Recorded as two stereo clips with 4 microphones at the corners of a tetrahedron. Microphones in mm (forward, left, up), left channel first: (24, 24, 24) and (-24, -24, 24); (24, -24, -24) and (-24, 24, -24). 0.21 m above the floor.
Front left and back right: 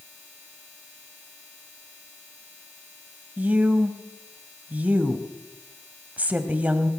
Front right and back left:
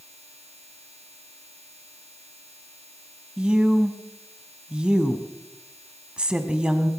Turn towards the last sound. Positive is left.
turn(degrees=-170)